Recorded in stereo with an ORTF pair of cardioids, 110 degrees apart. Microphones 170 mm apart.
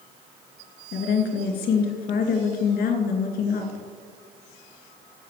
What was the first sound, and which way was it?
A woman speaking, 70° left.